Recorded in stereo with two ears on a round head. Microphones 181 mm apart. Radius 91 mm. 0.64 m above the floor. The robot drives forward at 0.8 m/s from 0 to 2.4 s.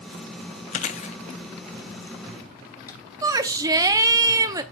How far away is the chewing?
About 0.7 m.